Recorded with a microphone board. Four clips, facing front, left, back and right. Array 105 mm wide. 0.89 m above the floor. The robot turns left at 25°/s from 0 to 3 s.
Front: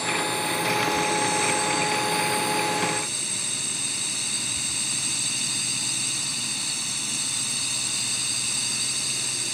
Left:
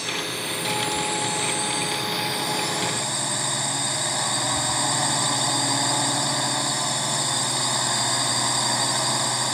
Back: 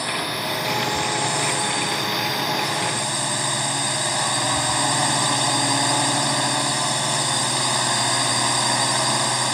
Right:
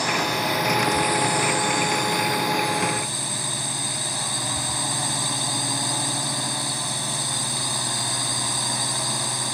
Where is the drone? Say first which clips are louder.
Right 7 dB, even; 120° right; by 9.6 s 165° left.